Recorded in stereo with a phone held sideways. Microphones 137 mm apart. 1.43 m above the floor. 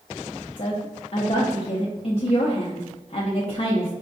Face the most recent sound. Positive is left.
turn(degrees=45)  # may be behind; listen again after turning